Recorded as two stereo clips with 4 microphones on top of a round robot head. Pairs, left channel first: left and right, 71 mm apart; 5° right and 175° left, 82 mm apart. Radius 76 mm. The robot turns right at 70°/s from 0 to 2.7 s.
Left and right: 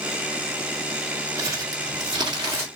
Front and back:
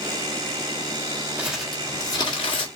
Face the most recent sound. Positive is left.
turn(degrees=-20)